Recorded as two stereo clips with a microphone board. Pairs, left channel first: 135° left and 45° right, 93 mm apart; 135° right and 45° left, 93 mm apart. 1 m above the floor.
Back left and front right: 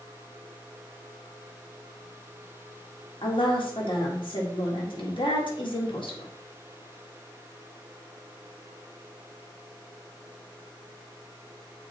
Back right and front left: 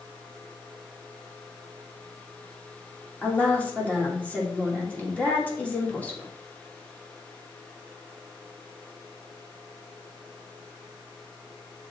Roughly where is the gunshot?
I don't hear a gunshot.